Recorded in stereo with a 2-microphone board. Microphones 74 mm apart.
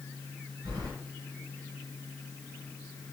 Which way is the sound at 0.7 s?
75° right (ahead or behind).